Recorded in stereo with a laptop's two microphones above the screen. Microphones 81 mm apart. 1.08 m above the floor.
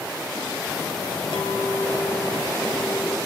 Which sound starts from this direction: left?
A clink, at 1.3 s.